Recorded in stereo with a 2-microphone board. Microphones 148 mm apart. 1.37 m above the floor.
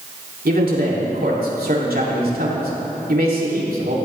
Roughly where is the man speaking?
Right.